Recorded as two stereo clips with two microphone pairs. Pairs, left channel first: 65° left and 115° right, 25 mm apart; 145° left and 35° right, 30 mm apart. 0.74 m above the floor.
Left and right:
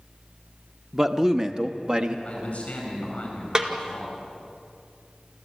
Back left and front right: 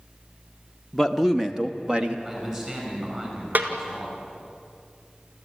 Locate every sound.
0.9 s a man speaking: 150° right, 0.8 m; by 2.1 s 85° right, 1.2 m
2.2 s a man speaking: 25° left, 9 m
3.5 s a snare drum: 55° right, 1.8 m